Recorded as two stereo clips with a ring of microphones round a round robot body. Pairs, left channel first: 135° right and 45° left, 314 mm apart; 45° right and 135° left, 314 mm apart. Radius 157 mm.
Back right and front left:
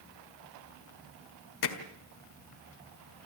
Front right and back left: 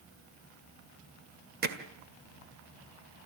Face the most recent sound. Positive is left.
turn(degrees=-165)